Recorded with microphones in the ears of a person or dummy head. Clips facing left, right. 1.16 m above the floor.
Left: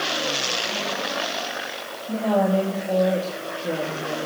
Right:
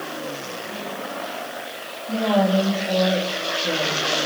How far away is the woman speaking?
About 2 m.